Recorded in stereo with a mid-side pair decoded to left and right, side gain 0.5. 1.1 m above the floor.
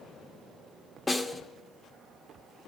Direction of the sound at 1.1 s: 15° left.